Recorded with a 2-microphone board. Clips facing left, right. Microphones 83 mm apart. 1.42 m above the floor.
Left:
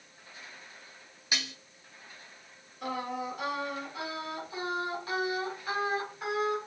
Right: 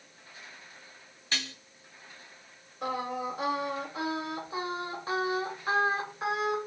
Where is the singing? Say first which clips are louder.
Right 2 dB; 25° right (ahead or behind), 1.5 m.